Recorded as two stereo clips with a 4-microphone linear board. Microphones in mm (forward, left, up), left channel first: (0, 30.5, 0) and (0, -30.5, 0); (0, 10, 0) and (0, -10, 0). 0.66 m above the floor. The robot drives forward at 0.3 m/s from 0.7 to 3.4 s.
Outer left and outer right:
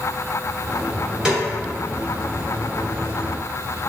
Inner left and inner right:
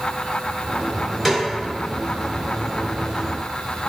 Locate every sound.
1.2 s a snare drum: 15° right (ahead or behind), 0.9 m; by 1.4 s 10° right (ahead or behind), 0.9 m